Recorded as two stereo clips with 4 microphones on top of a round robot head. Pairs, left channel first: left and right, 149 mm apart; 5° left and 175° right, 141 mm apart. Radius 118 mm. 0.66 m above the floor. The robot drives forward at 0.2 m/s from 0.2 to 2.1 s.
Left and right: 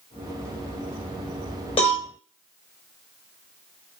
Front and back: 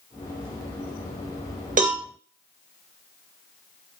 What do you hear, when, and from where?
1.8 s a cowbell: 155° left, 1.0 m